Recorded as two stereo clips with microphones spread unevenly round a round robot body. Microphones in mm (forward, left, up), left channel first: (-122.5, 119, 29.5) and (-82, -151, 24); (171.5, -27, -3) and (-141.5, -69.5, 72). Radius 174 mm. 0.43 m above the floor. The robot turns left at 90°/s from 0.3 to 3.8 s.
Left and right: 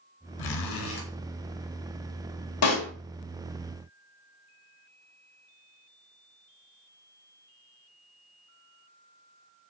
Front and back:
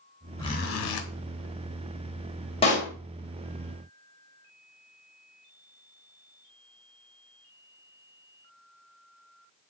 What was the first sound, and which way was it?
A zipper, 90° left.